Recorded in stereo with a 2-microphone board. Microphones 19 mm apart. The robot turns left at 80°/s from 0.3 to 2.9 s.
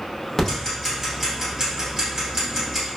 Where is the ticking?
25° left (ahead or behind), 0.9 m; by 2.9 s 15° right (ahead or behind), 0.9 m.